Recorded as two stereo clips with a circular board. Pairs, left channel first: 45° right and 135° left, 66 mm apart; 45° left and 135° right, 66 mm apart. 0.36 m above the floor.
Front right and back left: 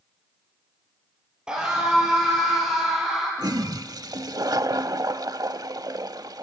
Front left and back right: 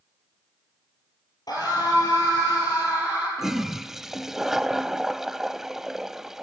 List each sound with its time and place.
1.5 s a scream: 60° left, 8 m; by 3.3 s 50° left, 9.5 m
3.4 s a toilet flushing: 140° left, 0.7 m